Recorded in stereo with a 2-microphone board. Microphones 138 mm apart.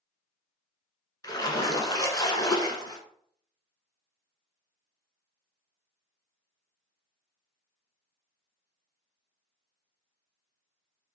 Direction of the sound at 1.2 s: 30° left (ahead or behind).